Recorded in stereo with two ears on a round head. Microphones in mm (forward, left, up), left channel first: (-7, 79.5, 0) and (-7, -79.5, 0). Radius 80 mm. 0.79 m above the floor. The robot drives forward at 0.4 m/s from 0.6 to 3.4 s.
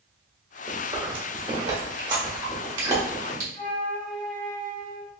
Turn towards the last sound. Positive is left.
turn(degrees=20)  # may be behind; listen again after turning